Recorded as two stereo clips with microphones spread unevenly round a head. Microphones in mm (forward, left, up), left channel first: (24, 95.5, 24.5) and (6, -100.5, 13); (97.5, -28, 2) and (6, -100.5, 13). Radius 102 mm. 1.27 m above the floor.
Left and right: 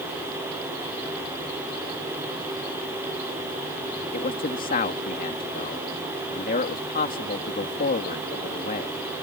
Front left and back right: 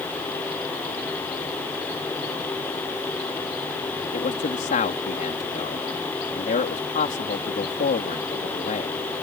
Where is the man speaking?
35° left.